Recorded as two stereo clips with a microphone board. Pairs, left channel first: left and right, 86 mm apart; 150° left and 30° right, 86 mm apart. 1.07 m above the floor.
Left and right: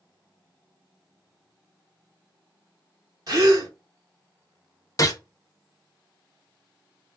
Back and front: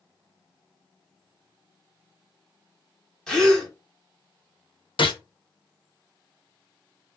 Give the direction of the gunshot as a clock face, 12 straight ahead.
7 o'clock.